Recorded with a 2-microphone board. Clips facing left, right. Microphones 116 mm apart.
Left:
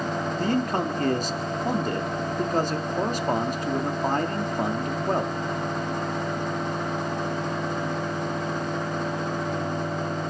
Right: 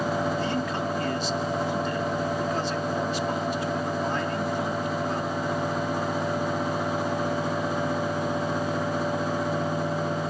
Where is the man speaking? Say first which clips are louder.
Left 3 dB; 45° left (ahead or behind), 1.4 m.